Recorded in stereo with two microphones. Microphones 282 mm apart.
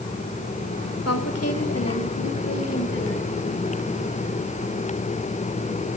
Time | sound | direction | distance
1.1 | a woman speaking | 55° left (ahead or behind) | 1.5 m